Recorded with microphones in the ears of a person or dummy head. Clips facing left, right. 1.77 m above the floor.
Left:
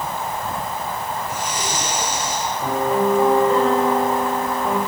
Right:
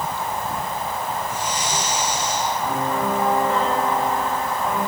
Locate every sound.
1.2 s breathing: 55° left (ahead or behind), 4.5 m
2.6 s a piano: 20° left (ahead or behind), 8 m